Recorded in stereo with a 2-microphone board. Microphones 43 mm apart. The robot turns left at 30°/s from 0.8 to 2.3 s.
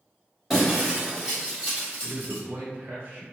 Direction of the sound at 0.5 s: 10° right (ahead or behind).